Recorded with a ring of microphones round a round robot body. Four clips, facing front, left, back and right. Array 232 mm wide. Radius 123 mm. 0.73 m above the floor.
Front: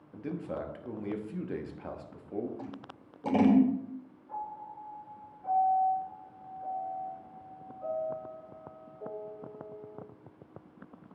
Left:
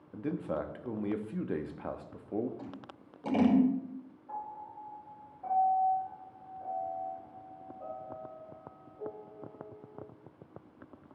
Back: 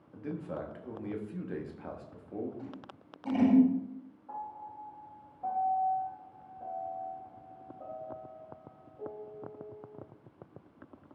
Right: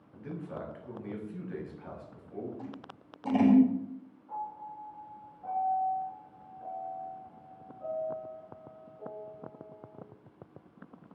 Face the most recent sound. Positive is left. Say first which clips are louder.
# right 3 dB, front 2 dB
turn(degrees=155)